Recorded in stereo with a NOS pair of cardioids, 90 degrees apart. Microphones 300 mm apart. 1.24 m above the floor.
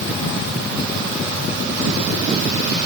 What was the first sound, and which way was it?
Only background noise.